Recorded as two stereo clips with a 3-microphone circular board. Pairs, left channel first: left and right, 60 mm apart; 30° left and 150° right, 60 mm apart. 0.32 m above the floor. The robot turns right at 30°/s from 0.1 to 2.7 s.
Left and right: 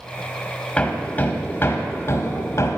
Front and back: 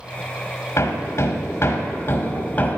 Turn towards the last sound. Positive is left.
turn(degrees=85)